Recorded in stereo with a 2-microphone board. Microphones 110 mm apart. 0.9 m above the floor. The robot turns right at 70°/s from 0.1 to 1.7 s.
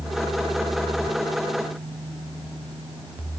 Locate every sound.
Only background noise.